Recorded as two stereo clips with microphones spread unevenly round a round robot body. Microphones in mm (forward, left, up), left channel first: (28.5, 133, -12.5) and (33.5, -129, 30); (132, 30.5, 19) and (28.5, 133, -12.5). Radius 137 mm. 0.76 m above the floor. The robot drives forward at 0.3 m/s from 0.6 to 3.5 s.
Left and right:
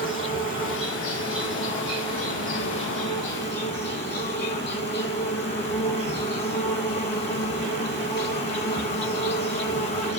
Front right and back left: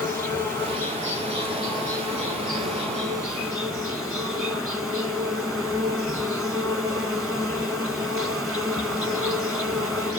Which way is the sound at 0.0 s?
35° left.